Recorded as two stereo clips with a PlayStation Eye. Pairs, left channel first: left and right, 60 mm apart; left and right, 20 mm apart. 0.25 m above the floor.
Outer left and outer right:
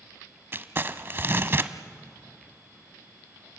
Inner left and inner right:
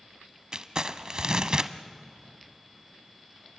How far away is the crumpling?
About 0.7 m.